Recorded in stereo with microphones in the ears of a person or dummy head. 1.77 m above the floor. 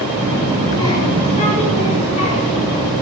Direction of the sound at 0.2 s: 5° right (ahead or behind).